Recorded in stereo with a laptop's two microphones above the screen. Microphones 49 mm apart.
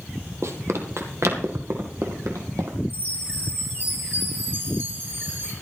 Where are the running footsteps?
65° right (ahead or behind), 2 m; by 2.8 s 75° right (ahead or behind), 3 m.